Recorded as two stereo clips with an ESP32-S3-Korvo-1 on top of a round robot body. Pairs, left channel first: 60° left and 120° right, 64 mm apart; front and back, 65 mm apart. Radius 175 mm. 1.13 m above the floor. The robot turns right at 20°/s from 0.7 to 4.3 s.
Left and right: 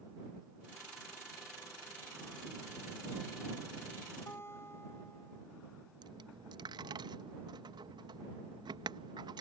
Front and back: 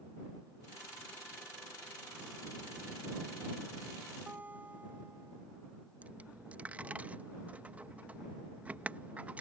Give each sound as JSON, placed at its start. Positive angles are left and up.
{"t": 4.3, "sound": "a guitar", "azimuth_deg": 115}
{"t": 6.0, "sound": "a dropped coin", "azimuth_deg": -110}